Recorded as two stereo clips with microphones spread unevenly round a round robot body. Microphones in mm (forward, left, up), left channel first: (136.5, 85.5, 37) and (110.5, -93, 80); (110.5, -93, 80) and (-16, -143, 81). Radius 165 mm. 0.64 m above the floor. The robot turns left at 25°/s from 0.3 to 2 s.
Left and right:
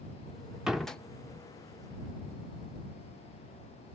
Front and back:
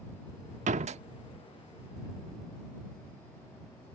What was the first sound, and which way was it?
A door slam, 170° left.